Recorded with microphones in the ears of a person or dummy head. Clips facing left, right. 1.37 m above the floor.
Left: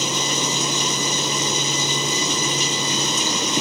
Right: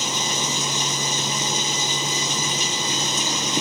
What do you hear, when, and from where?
0.0 s running water: 70° left (ahead or behind)